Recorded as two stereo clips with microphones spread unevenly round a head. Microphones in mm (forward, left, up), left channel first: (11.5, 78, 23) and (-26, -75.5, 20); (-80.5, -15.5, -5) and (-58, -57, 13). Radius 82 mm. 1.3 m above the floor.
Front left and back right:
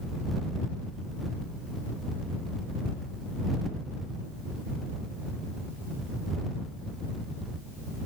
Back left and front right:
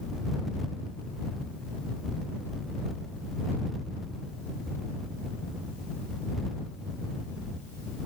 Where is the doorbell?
I don't hear a doorbell.